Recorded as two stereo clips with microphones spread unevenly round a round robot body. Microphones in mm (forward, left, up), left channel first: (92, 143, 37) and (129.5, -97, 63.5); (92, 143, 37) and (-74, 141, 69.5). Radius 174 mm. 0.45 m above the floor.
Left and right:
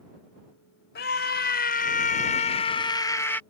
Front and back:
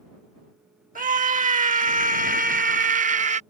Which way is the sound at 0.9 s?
140° left.